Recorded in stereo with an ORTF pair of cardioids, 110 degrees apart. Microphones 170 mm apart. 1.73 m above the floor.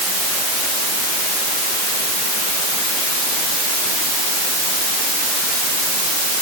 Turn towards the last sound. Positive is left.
No sound to turn to.